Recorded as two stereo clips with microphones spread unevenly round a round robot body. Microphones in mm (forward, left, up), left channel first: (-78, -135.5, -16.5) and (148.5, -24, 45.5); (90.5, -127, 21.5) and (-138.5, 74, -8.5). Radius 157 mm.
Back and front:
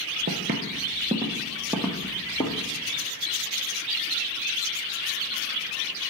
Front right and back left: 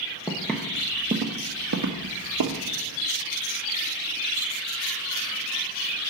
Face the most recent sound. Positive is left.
turn(degrees=120)